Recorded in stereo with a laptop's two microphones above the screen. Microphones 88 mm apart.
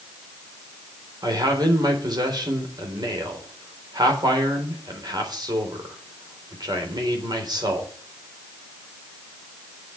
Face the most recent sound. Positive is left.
turn(degrees=-60)  # may be behind; listen again after turning